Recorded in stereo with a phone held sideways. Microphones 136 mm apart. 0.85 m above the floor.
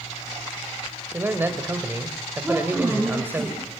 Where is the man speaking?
15° right (ahead or behind), 4 m.